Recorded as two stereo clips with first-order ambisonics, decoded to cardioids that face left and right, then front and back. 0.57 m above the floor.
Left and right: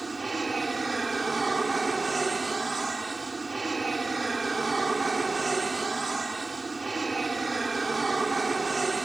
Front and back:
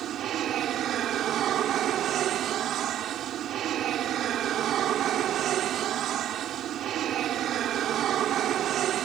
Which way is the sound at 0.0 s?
160° right.